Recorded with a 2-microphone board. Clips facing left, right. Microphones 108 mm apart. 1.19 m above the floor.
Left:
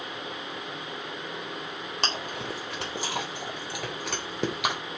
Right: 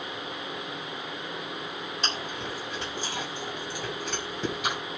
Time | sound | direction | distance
2.0 | chewing | 80° left | 3.5 m